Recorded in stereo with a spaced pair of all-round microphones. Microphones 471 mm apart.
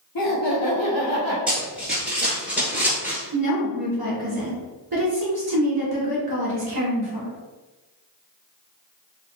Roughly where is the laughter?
Left.